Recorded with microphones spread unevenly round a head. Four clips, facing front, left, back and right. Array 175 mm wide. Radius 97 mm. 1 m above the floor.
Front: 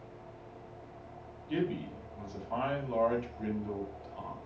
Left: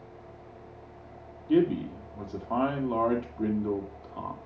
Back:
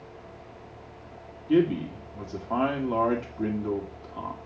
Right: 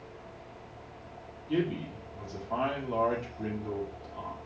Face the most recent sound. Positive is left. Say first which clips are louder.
# left 7 dB, back 11 dB
turn(degrees=145)